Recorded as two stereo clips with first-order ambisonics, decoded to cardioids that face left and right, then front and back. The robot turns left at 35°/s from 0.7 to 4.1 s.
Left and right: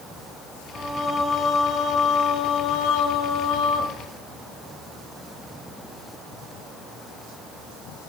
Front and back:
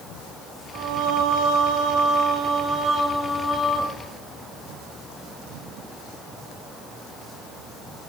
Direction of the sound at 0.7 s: 170° right.